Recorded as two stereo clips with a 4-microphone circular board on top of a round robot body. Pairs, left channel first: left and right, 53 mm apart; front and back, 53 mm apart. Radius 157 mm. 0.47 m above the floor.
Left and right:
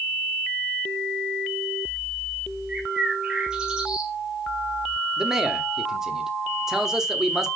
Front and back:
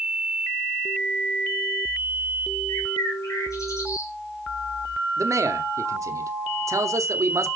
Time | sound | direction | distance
2.7 | a bird | 15° right | 3 m
5.2 | a man speaking | 170° right | 1.5 m